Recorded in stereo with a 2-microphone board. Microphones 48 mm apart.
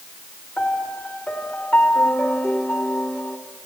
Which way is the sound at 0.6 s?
30° left (ahead or behind).